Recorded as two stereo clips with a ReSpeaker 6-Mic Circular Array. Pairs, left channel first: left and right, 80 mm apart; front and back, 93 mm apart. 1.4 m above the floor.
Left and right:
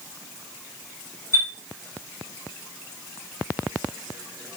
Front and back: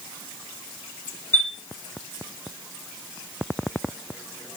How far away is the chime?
About 2.0 m.